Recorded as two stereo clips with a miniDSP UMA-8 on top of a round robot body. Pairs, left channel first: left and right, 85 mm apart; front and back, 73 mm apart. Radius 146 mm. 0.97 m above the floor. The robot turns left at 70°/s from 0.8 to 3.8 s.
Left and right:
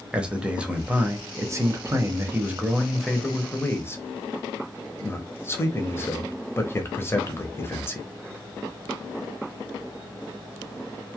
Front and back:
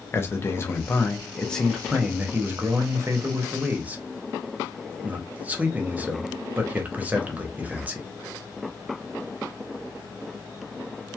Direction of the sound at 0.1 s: 20° right.